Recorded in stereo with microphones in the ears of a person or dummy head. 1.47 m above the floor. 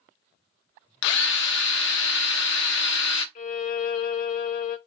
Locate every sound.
1.0 s a drill: 80° left, 0.8 m
3.4 s a violin: 40° left (ahead or behind), 0.5 m